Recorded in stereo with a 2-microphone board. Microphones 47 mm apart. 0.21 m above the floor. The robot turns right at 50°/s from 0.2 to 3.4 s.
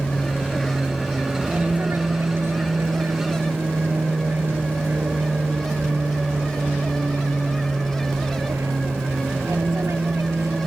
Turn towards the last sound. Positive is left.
turn(degrees=-75)  # may be behind; listen again after turning